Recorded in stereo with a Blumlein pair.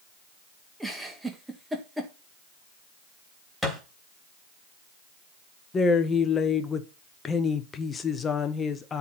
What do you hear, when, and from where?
0.8 s a giggle: 5° right, 1.9 m
3.6 s a thud: 5° right, 3 m
5.7 s a woman speaking: 20° left, 1.2 m